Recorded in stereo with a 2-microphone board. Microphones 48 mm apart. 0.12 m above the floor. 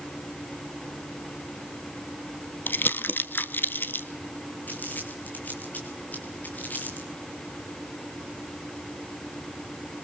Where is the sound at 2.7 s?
45° left (ahead or behind), 1.2 m.